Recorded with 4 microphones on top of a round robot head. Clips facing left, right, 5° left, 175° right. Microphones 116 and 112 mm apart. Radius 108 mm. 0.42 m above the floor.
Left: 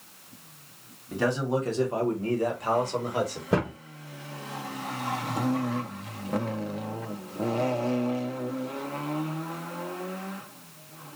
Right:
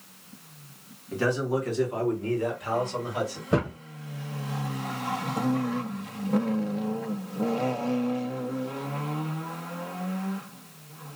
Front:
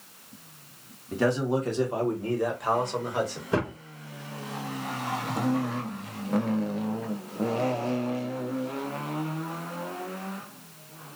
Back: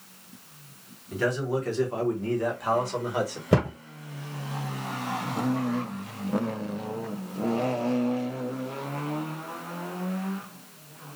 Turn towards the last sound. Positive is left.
turn(degrees=175)